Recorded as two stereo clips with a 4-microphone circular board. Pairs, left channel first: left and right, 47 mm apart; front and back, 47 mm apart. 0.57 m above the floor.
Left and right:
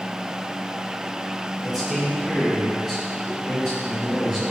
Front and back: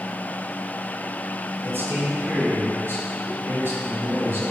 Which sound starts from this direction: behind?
A man speaking, at 1.6 s.